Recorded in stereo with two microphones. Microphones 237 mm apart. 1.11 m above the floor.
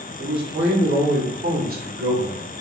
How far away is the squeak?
I don't hear a squeak.